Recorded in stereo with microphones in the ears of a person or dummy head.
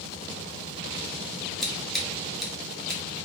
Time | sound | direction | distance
1.6 | scissors | centre (ahead or behind) | 1.1 m